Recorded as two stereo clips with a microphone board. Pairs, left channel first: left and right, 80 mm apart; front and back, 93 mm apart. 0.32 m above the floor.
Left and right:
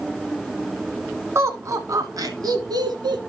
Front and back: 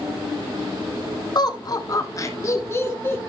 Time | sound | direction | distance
1.4 | laughter | 35° right | 2.5 m